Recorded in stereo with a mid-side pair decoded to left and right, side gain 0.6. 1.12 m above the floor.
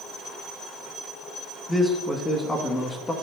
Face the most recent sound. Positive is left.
turn(degrees=25)